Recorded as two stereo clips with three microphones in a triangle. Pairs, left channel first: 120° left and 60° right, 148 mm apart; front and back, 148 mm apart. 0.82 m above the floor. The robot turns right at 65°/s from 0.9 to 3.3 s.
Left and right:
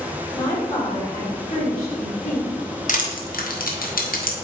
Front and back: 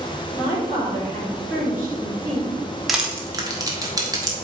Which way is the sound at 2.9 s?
90° left.